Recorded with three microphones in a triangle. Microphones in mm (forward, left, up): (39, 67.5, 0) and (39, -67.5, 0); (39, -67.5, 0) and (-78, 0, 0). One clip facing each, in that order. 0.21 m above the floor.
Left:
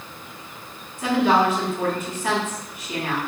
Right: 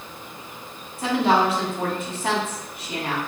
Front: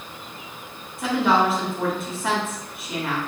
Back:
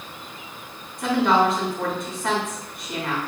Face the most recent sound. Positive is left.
turn(degrees=-115)